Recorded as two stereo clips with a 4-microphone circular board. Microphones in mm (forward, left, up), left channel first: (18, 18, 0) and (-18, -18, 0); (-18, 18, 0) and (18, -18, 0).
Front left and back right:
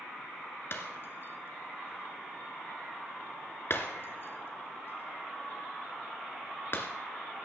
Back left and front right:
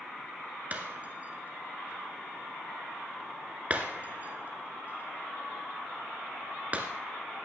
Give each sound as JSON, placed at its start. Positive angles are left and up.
{"t": 0.7, "sound": "breaking glass", "azimuth_deg": 10, "distance_m": 2.0}